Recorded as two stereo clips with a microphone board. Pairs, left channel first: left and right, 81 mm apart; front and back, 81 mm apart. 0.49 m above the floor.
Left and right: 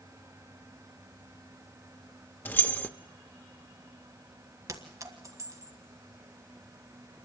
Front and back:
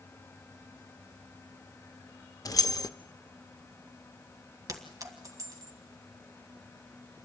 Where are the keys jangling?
30° left, 0.5 m.